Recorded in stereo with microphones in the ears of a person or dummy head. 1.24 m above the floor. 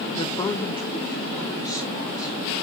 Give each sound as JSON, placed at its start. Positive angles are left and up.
{"t": 0.2, "sound": "a woman speaking", "side_deg": 30, "distance_m": 0.6}